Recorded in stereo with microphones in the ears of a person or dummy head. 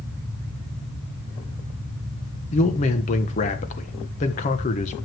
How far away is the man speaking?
About 1.3 m.